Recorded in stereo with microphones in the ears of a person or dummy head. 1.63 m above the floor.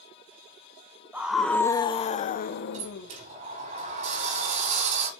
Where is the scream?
5° right (ahead or behind), 1.6 m; by 3.1 s 70° left (ahead or behind), 2.5 m.